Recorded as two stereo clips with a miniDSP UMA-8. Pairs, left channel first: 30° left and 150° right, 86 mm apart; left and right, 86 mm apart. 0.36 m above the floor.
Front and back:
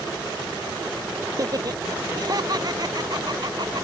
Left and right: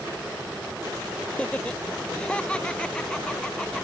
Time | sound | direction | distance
1.3 | laughter | 165° left | ?